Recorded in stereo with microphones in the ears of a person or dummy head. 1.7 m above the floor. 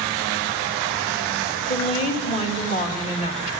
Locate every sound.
1.7 s a woman speaking: 35° left (ahead or behind), 2 m